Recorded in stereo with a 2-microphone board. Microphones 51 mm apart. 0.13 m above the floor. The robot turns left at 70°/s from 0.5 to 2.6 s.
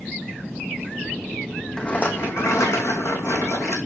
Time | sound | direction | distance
1.8 | a rattle | 160° left | 1.9 m